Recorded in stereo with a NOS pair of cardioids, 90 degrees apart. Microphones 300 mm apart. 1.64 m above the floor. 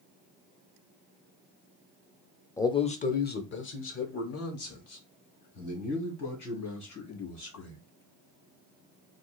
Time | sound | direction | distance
2.6 | a man speaking | 10° left | 0.6 m